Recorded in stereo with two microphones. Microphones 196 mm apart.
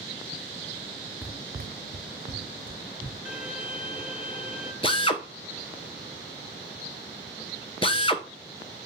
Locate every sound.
1.2 s running footsteps: centre (ahead or behind), 0.6 m; by 3.1 s 70° right (ahead or behind), 1.8 m
3.2 s a violin: 5° right (ahead or behind), 1.1 m
4.8 s a drill: 30° left (ahead or behind), 0.6 m